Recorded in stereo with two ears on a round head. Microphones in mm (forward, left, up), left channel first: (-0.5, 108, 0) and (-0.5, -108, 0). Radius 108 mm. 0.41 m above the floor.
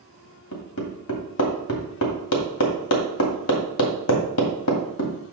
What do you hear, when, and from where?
0.5 s hammering: 70° left (ahead or behind), 2.0 m